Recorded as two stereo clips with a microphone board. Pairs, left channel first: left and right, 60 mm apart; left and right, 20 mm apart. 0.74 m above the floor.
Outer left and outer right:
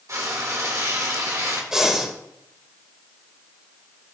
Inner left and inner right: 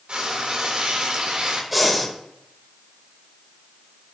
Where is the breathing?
10° right (ahead or behind), 2 m.